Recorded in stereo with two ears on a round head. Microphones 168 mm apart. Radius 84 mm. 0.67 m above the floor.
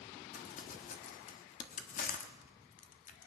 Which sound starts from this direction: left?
Crumpling, at 0.3 s.